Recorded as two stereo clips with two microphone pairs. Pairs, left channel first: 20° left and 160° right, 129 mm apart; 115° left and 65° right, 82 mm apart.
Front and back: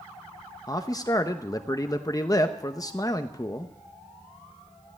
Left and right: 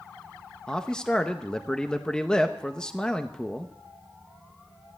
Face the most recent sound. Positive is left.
turn(degrees=40)